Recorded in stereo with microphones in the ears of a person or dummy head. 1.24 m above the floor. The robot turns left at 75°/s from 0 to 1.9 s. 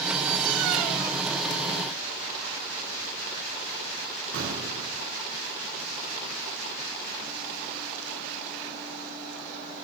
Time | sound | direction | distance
4.3 | an explosion | 80° right | 7 m